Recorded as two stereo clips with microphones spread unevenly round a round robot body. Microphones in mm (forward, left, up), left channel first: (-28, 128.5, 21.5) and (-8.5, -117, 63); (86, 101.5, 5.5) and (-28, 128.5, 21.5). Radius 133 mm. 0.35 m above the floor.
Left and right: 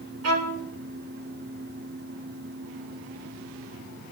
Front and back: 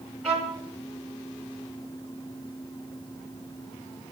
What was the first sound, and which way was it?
A violin, 100° right.